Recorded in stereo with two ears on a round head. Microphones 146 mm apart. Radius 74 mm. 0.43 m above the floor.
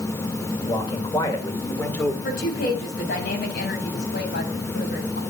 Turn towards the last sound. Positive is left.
turn(degrees=65)  # may be behind; listen again after turning